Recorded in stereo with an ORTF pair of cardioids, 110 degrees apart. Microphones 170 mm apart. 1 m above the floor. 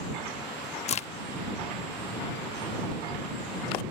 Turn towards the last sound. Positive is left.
turn(degrees=40)